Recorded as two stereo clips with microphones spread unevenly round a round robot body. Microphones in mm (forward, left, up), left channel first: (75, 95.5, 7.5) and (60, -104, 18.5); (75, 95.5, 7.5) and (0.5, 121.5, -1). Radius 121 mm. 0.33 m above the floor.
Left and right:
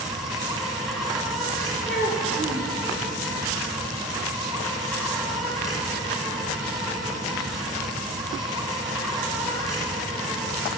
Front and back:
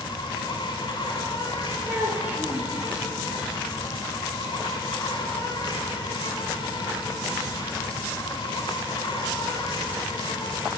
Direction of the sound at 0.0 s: 5° right.